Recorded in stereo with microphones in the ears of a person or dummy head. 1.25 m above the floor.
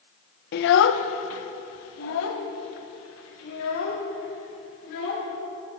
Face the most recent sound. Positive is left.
turn(degrees=70)  # may be behind; listen again after turning